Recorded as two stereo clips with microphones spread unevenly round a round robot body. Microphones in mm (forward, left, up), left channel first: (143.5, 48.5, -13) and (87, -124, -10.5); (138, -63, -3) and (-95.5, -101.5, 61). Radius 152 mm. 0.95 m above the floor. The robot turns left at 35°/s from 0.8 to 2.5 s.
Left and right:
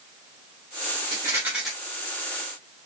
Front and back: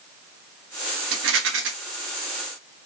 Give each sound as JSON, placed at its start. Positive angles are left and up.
{"t": 1.1, "sound": "a rattle", "azimuth_deg": -175, "distance_m": 0.9}